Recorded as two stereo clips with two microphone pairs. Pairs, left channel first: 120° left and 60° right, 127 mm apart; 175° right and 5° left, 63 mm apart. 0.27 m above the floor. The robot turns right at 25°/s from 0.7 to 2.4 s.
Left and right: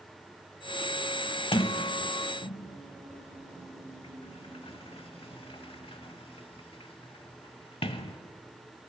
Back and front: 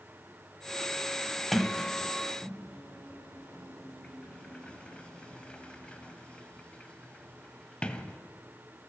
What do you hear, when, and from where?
1.5 s a sliding door: 100° left, 0.6 m; by 8.2 s 120° left, 0.6 m